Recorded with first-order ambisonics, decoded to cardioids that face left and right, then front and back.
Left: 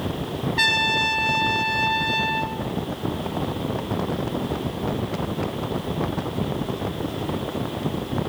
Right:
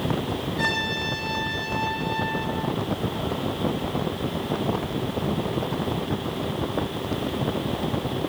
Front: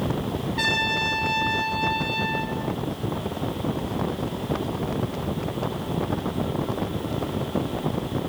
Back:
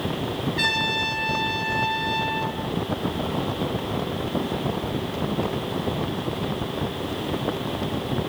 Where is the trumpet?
90° left, 1.4 m.